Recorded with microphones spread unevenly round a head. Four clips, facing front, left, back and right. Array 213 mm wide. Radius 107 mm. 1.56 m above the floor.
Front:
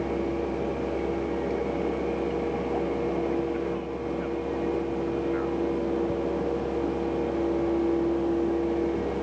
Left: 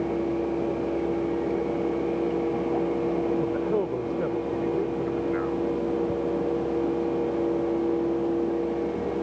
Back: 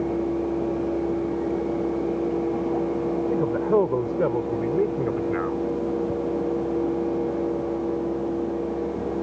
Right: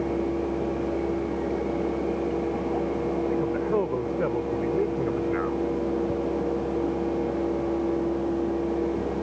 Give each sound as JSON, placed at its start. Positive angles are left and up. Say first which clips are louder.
{"t": 3.3, "sound": "a man speaking", "louder": "even, back 6 dB", "azimuth_deg": 175}